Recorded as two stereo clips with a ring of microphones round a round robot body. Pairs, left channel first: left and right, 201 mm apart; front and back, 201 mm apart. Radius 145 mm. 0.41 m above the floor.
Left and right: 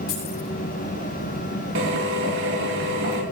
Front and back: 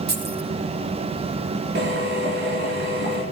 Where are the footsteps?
I don't hear footsteps.